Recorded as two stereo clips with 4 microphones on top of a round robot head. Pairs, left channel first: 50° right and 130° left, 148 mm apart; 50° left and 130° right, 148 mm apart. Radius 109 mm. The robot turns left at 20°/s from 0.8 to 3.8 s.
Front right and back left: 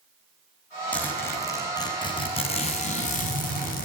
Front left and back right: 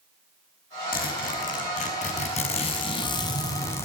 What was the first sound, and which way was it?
A zipper, 35° left.